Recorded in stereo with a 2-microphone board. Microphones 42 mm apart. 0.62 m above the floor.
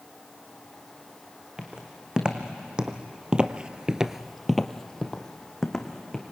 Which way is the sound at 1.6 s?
20° right (ahead or behind).